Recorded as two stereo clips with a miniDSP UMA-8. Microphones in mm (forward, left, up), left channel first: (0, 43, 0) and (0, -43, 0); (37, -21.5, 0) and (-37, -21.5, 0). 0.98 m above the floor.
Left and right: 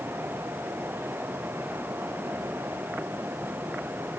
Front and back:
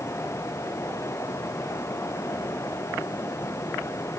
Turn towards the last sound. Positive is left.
No sound to turn to.